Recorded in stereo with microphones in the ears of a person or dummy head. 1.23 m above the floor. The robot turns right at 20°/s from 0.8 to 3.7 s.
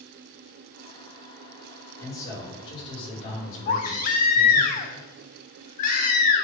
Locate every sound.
2.0 s a man speaking: 15° left, 4.5 m; by 4.7 s 50° left, 4.5 m
3.7 s a baby crying: 45° left (ahead or behind), 1.0 m